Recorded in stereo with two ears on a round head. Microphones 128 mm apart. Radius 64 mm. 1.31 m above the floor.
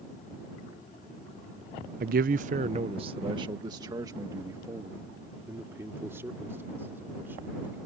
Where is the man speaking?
65° right (ahead or behind); by 7.8 s 15° right (ahead or behind).